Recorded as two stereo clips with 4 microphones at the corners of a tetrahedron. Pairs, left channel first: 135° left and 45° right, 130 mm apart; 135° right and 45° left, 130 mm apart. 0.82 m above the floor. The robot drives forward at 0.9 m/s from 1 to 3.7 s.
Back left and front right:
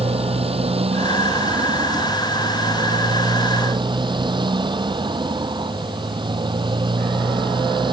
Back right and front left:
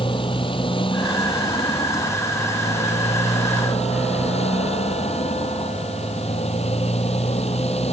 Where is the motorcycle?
85° right; by 7.9 s 100° right.